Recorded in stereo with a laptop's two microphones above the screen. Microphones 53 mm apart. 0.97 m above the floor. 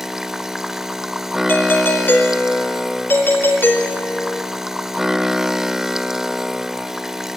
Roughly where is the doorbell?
Left.